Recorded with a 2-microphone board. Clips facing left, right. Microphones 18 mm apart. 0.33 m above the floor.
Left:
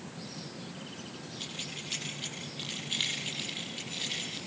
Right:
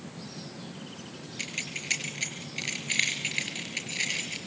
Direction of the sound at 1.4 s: 80° right.